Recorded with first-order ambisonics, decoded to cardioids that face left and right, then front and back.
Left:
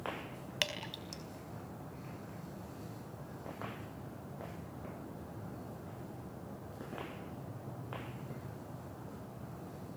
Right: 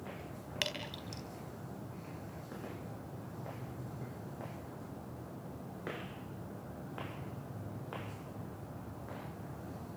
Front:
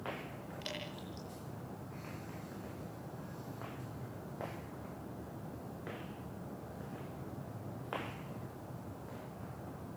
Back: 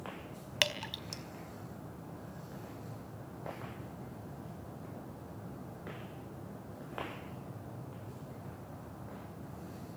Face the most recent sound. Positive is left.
turn(degrees=170)